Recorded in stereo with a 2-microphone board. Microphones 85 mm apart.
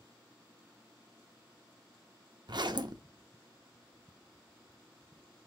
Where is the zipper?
55° right (ahead or behind), 0.5 m.